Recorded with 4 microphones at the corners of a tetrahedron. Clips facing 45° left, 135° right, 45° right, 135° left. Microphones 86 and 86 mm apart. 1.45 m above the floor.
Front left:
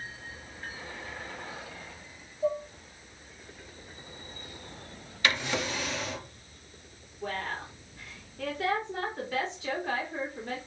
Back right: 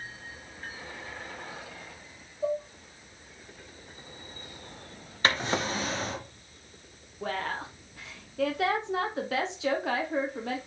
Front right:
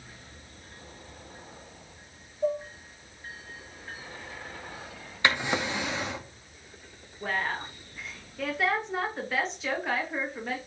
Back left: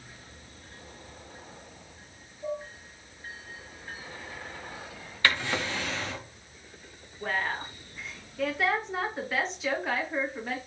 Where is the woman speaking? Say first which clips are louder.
Back right 2 dB, even; 135° right, 0.8 m.